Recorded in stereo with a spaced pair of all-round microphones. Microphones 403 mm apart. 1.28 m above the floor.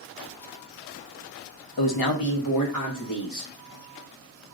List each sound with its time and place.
1.8 s a man speaking: 65° left (ahead or behind), 0.6 m; by 3.5 s 45° left (ahead or behind), 1.7 m